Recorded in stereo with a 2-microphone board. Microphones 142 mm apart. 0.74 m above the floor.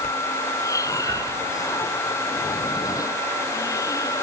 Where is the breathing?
20° left (ahead or behind).